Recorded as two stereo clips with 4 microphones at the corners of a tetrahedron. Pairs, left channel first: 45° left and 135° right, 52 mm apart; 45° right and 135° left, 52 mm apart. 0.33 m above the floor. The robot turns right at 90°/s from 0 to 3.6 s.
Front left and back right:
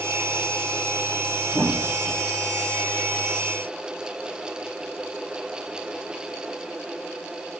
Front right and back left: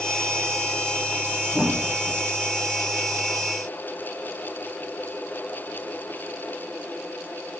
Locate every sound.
1.5 s a thud: 165° right, 6 m; by 2.2 s 105° right, 6 m